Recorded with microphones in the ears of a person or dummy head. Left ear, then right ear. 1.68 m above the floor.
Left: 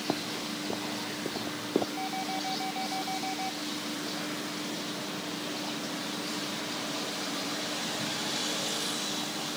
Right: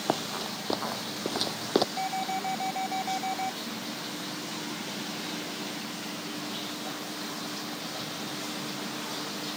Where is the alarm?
25° right (ahead or behind).